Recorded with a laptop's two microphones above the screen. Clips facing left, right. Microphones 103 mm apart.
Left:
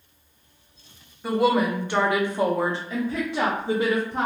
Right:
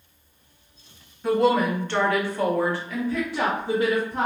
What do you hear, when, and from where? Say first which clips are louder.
1.2 s a woman speaking: right 1 dB; 5° left (ahead or behind), 0.9 m; by 4.3 s 20° left (ahead or behind), 1.2 m